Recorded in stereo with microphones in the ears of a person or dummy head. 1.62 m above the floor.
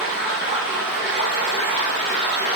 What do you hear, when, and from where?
0.0 s running water: 60° left (ahead or behind), 1.3 m